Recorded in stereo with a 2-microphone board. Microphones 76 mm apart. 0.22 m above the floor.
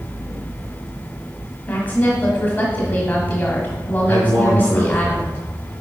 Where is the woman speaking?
25° left (ahead or behind), 1.3 m.